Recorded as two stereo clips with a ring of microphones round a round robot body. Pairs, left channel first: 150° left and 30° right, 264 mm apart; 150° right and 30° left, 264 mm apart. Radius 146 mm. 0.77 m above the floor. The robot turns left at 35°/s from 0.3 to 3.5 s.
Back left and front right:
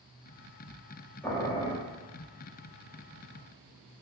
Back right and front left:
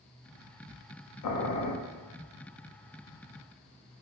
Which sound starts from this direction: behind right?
Boiling, at 1.2 s.